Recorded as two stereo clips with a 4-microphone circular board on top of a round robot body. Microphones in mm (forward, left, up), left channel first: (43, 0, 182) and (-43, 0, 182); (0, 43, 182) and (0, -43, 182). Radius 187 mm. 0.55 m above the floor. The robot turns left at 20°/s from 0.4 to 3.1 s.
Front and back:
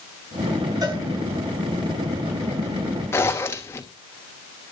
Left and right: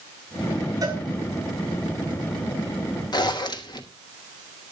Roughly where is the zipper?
Ahead left.